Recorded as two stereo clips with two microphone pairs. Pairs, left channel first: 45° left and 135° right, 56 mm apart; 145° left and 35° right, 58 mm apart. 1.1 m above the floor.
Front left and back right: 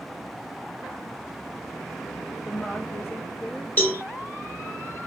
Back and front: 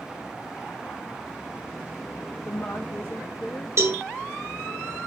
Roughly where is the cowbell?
Ahead.